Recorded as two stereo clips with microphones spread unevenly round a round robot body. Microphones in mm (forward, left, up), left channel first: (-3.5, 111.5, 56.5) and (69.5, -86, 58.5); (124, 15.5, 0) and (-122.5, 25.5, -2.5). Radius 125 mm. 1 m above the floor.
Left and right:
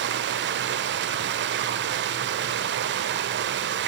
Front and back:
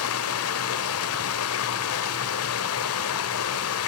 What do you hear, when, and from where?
0.0 s running water: 35° right, 1.6 m